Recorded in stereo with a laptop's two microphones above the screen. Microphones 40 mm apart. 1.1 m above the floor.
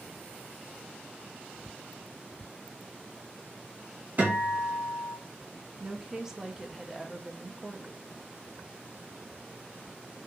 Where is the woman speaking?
10° right (ahead or behind), 0.5 m.